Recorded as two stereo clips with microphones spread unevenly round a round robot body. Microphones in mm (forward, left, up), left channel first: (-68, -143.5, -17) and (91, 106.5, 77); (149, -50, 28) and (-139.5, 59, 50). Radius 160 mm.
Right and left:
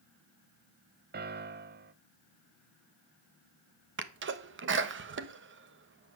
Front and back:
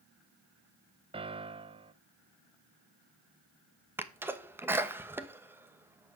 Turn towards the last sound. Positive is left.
turn(degrees=80)